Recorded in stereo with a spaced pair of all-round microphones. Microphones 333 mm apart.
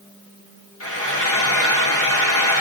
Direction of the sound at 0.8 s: 40° left (ahead or behind).